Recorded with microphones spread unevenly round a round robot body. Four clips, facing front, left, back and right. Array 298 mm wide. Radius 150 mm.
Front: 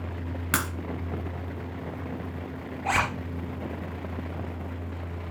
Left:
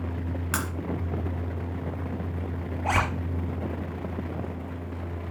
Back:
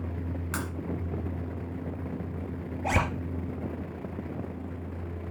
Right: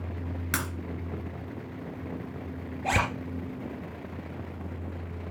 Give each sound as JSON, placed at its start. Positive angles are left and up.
{"t": 0.5, "sound": "breaking glass", "azimuth_deg": -10, "distance_m": 2.5}
{"t": 2.8, "sound": "a zipper", "azimuth_deg": -150, "distance_m": 1.8}